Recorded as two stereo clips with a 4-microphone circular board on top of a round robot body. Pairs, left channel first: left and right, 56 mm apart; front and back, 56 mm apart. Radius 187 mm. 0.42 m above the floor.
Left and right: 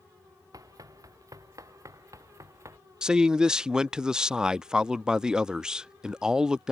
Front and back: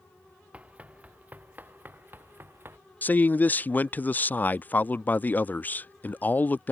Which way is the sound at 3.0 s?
20° right.